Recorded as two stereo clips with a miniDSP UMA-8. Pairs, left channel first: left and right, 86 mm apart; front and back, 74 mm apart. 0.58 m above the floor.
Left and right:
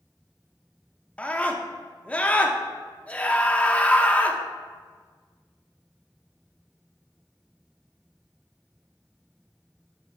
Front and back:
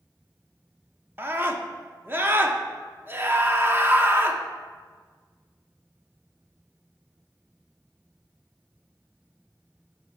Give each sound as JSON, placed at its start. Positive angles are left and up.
{"t": 1.2, "sound": "a scream", "azimuth_deg": 150, "distance_m": 0.8}